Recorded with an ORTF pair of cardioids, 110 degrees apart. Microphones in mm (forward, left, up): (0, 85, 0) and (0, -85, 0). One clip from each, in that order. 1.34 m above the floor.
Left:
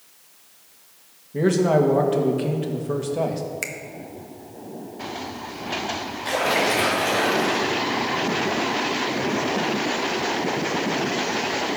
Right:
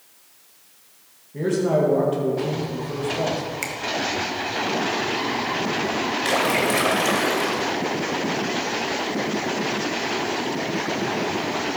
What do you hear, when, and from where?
1.3 s a man speaking: 35° left, 1.9 m
3.6 s a finger snap: straight ahead, 1.1 m
6.2 s a splash: 65° right, 2.5 m